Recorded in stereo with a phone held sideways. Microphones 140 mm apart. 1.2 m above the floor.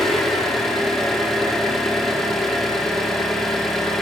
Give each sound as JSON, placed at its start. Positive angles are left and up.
{"t": 0.0, "sound": "an engine running", "side_deg": 0, "distance_m": 0.9}